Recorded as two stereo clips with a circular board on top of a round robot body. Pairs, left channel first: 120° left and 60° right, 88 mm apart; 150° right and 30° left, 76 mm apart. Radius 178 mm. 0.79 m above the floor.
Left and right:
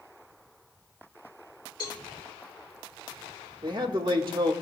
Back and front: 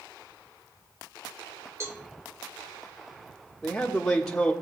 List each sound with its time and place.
1.8 s a cowbell: 80° left, 1.9 m
3.6 s a man speaking: 65° right, 1.4 m